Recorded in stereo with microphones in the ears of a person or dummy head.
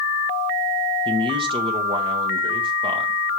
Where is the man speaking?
25° right (ahead or behind), 1.3 m.